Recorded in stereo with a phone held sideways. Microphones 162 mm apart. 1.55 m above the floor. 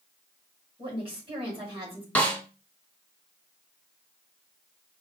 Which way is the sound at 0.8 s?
30° right (ahead or behind).